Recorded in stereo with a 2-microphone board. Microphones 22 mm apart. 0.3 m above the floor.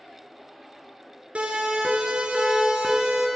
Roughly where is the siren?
Right.